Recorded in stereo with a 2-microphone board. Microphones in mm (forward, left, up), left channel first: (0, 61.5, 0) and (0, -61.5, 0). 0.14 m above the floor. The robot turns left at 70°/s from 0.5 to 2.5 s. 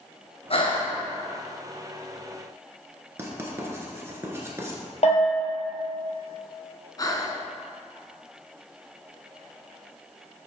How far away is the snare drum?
No snare drum in this recording.